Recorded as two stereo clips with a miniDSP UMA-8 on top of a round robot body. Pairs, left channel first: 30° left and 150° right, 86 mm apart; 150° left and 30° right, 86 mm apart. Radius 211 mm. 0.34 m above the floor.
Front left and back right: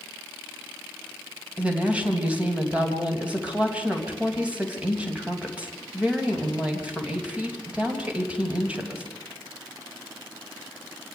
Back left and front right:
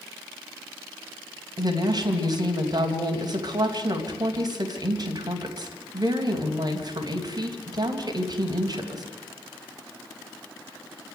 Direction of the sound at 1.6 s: 70° right.